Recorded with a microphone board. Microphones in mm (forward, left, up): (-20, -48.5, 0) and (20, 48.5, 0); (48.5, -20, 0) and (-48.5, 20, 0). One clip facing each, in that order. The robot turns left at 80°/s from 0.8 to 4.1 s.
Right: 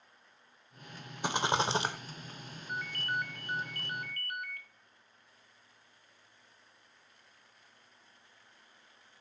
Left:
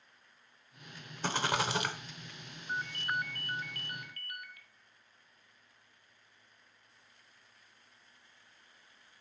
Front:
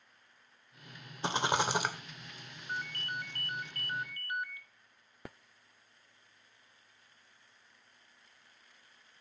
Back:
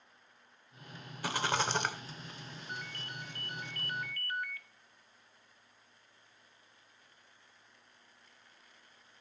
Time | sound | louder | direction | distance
1.2 | a rattle | right 2 dB, front 2 dB | 50° right | 0.8 m
2.7 | a ringtone | left 1 dB, front 6 dB | 25° left | 0.8 m